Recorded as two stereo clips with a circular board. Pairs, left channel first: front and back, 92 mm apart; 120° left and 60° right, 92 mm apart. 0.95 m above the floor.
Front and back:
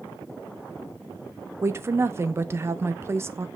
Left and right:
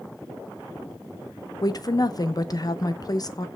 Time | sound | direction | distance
1.6 | a woman speaking | 130° left | 0.6 m